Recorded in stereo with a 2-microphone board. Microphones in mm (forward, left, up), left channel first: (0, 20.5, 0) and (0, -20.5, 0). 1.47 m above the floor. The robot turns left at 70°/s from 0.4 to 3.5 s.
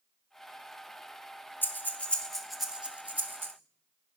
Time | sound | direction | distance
1.6 | breathing | 50° left (ahead or behind) | 1.0 m